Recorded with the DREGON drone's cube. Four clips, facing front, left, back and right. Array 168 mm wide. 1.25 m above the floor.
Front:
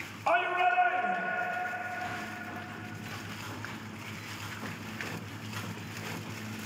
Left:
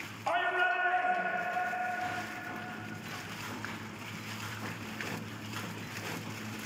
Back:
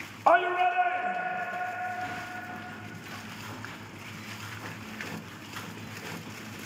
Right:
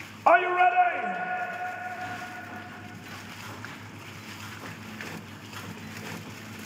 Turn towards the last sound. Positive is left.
turn(degrees=-70)